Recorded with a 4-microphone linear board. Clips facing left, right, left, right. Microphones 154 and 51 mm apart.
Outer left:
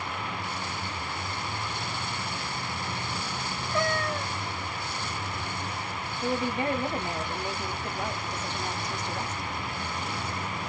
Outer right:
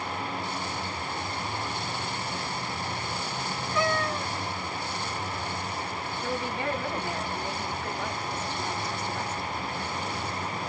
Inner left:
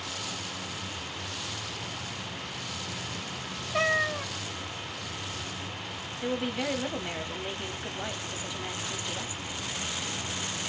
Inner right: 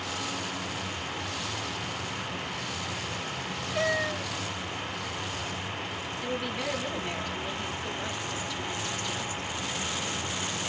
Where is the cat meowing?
45° left (ahead or behind), 0.8 m.